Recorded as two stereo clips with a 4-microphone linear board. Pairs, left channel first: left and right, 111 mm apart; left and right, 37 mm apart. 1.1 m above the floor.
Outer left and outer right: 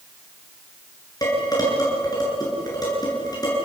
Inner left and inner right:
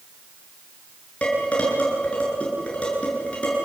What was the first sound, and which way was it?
Dishes clattering, 40° left (ahead or behind).